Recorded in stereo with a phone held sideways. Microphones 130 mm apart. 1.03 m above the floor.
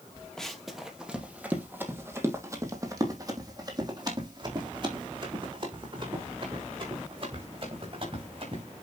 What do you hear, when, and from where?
0.4 s running footsteps: 5° left (ahead or behind), 1.9 m; by 8.6 s 45° right (ahead or behind), 6 m